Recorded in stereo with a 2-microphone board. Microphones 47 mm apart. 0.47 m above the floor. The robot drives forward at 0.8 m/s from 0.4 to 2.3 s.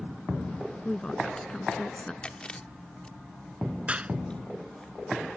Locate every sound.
0.8 s a woman speaking: 15° left (ahead or behind); by 2.1 s 20° left (ahead or behind)
2.2 s chewing: 20° left (ahead or behind)
3.9 s a clap: 30° right (ahead or behind)